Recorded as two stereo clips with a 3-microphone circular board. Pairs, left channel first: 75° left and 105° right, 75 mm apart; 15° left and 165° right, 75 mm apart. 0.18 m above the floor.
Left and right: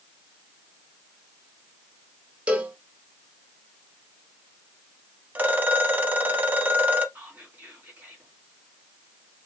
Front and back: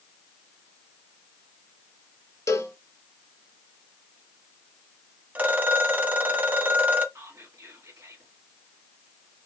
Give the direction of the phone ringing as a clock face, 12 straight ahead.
4 o'clock.